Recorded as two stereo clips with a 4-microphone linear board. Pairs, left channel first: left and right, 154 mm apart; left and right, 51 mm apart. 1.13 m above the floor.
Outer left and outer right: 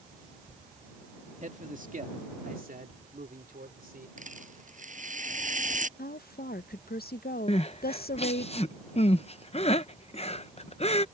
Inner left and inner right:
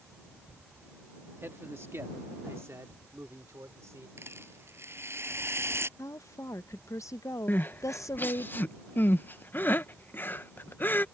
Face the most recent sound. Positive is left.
turn(degrees=45)  # may be behind; listen again after turning